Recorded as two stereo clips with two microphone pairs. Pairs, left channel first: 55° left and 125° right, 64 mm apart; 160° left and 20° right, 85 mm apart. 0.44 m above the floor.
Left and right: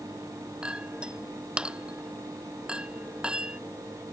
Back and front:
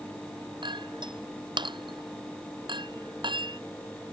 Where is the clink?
45° right.